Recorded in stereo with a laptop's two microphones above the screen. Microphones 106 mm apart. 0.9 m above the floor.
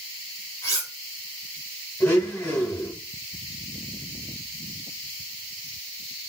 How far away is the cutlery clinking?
About 1.9 m.